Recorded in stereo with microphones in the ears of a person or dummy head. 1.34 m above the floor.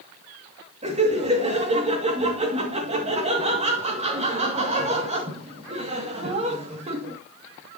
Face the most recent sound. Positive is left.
turn(degrees=-40)  # may be behind; listen again after turning